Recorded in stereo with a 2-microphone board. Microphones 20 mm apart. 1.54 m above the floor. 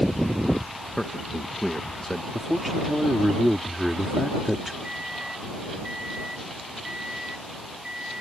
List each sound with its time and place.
1.0 s a man speaking: 20° left (ahead or behind)
2.3 s a man speaking: 5° right (ahead or behind)
4.8 s a microwave: 45° right (ahead or behind)